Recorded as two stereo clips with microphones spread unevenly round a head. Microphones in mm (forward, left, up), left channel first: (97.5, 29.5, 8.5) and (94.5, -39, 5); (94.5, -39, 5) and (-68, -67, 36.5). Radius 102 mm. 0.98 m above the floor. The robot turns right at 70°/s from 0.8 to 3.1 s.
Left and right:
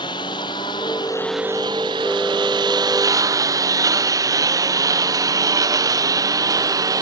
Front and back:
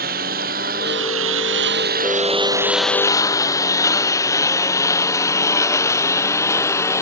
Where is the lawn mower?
140° left; by 7.0 s 65° right.